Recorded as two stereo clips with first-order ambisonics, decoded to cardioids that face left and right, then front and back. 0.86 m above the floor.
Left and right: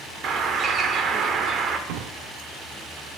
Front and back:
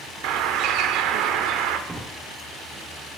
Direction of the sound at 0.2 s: 150° right.